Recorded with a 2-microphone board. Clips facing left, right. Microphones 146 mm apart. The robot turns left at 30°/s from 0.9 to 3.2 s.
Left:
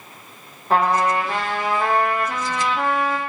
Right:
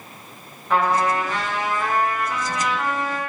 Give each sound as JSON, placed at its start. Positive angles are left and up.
{"t": 0.7, "sound": "a trumpet", "azimuth_deg": 145, "distance_m": 0.8}